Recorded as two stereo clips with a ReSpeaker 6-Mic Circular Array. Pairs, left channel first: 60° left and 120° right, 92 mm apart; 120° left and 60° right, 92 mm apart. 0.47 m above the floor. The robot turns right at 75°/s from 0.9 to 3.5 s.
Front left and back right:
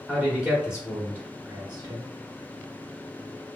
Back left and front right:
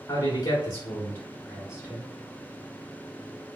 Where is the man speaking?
160° left, 1.2 m; by 2.1 s 110° right, 1.2 m.